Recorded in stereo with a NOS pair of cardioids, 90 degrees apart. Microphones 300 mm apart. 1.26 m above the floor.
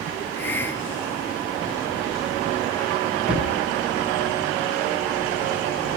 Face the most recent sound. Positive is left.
turn(degrees=-5)